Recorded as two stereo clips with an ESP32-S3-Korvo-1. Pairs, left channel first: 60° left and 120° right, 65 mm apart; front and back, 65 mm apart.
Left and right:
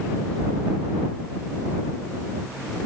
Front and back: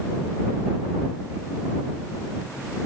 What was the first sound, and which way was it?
Only background noise.